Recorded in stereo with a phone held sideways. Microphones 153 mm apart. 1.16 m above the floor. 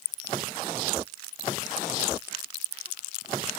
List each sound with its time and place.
Only background noise.